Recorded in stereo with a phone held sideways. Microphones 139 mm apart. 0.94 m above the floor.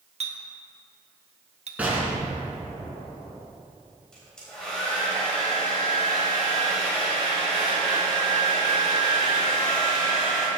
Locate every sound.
0.2 s a clink: 55° right (ahead or behind), 1.0 m
1.8 s an explosion: 10° right (ahead or behind), 2.5 m
4.1 s a hair dryer: 5° left (ahead or behind), 3.5 m